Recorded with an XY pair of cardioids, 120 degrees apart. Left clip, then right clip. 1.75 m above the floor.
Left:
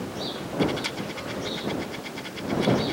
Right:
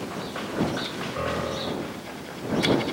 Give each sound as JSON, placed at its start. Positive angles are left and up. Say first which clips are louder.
{"t": 1.2, "sound": "a piano", "louder": "right 4 dB", "azimuth_deg": -60}